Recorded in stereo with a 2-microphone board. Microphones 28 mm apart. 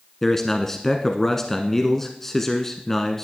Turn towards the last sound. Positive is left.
turn(degrees=15)  # may be behind; listen again after turning